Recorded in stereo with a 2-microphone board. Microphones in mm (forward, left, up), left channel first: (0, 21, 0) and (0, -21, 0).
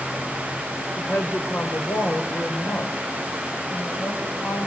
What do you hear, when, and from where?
1.0 s a woman speaking: 80° left, 3.5 m; by 4.7 s 75° left (ahead or behind), 6 m